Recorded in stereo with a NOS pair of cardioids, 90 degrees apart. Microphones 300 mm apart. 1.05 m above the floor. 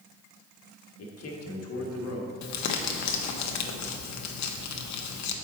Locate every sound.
1.0 s a man speaking: 55° left, 1.3 m
2.4 s crumpling: 70° left, 0.8 m